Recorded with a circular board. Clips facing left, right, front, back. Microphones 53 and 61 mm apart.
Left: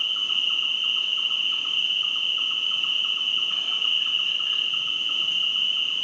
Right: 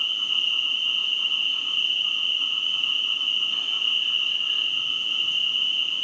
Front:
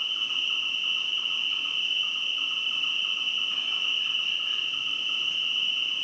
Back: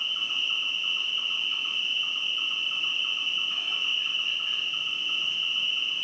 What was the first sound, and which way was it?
An insect, 105° left.